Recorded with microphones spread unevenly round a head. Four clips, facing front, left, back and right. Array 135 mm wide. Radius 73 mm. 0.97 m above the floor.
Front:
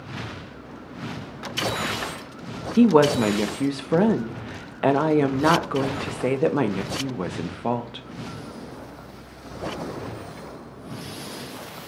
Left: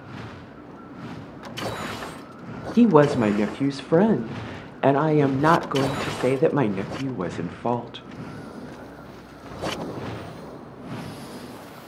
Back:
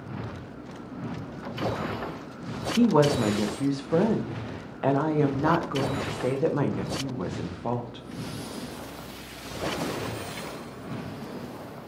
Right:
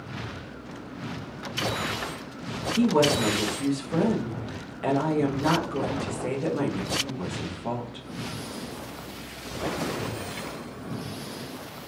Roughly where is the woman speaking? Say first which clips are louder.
Left 6 dB, front 5 dB; ahead left.